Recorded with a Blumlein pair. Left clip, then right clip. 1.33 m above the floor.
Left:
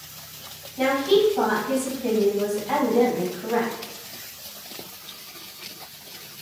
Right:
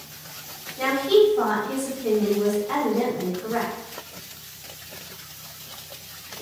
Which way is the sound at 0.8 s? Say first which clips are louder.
Right 1 dB; 70° left.